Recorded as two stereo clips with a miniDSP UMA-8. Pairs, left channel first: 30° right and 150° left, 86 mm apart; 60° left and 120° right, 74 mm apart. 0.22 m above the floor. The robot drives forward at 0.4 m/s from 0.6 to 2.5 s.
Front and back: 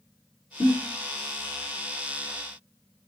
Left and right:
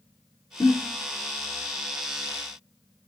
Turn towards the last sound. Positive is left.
turn(degrees=20)